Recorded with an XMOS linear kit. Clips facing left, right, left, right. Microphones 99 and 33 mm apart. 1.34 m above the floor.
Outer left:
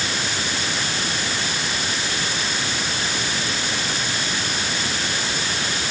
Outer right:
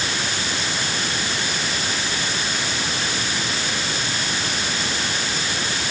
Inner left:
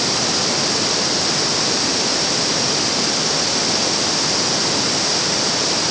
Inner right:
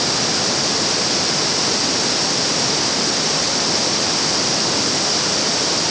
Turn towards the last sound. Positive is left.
No sound to turn to.